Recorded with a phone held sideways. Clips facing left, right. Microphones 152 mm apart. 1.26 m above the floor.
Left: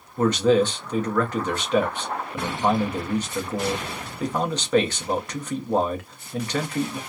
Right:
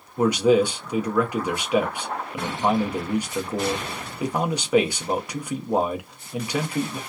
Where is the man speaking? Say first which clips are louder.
Right 1 dB; 10° right (ahead or behind), 0.8 m.